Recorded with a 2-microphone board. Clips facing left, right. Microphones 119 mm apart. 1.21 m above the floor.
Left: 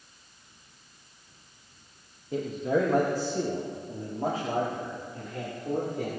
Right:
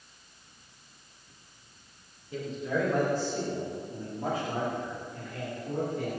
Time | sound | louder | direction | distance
2.3 | a man speaking | left 5 dB | 40° left (ahead or behind) | 1.0 m